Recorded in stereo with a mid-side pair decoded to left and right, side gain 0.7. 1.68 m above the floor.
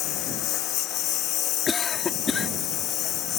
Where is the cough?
25° left.